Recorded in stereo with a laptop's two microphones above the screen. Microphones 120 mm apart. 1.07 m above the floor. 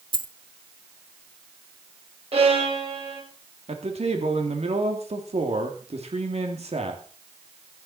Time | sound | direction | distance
0.1 | a dropped coin | 45° right (ahead or behind) | 0.7 m
2.3 | a violin | 65° right (ahead or behind) | 6 m
3.7 | a man speaking | 70° right (ahead or behind) | 3 m